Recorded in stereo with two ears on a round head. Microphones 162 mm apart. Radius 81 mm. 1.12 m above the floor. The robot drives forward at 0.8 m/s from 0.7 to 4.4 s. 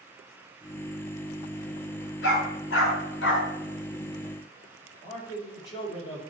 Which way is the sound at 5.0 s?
25° left (ahead or behind).